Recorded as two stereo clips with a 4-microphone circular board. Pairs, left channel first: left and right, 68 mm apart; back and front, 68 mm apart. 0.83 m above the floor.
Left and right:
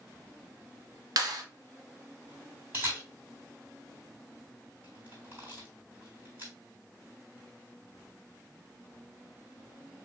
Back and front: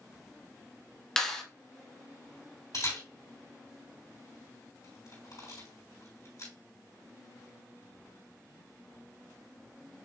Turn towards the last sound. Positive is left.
turn(degrees=-155)